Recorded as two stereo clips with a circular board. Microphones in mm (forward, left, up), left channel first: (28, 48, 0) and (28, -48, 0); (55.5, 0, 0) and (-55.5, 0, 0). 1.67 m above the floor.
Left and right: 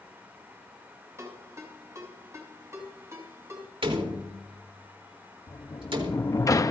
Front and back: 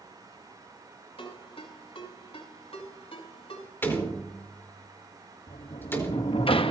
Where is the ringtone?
35° right, 6 m.